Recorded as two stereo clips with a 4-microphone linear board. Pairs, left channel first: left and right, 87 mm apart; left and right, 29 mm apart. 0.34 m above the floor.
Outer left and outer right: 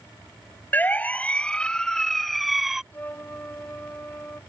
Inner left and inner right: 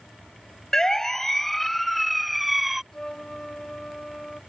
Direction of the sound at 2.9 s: 25° left (ahead or behind).